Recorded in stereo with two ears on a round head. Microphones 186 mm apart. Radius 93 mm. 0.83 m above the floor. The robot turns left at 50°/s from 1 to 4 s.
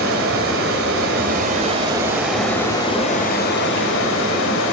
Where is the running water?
110° right, 2 m; by 4.7 s 100° left, 2 m.